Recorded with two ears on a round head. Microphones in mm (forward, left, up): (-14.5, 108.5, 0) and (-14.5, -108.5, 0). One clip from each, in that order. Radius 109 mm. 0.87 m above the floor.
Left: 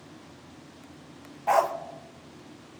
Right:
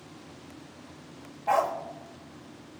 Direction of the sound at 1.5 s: 25° left (ahead or behind).